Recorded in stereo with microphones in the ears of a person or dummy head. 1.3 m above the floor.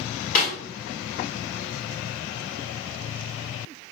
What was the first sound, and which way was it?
A snare drum, 45° left (ahead or behind).